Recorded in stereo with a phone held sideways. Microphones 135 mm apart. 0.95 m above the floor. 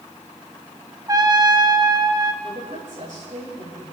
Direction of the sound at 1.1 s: 30° right (ahead or behind).